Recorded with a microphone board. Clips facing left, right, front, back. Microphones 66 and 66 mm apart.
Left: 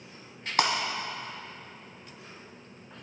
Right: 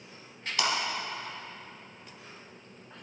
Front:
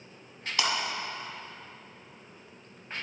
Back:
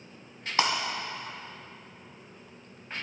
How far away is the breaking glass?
About 1.0 m.